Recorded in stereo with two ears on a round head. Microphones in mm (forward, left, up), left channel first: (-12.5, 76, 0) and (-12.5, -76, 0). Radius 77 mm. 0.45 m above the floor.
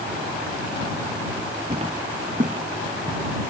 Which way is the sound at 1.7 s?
35° right (ahead or behind).